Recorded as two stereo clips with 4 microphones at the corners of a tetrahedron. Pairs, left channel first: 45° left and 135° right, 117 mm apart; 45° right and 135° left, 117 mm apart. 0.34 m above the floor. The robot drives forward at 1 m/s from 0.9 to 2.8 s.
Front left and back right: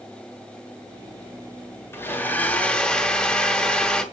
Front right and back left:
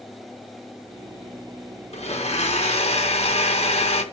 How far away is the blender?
About 2.5 m.